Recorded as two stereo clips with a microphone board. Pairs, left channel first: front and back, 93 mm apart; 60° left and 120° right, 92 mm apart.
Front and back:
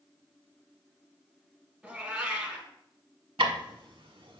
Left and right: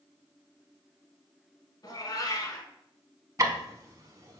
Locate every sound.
1.8 s a cat meowing: 105° left, 1.0 m
3.4 s ticking: 170° right, 0.7 m